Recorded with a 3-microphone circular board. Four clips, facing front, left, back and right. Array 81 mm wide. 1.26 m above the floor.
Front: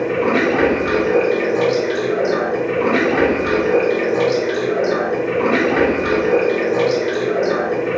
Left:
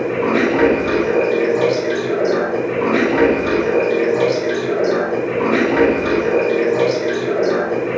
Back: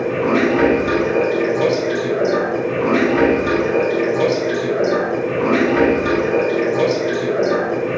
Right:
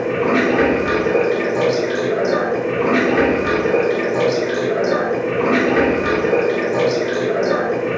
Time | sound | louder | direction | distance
0.0 | running water | even, even | 40° right | 1.2 m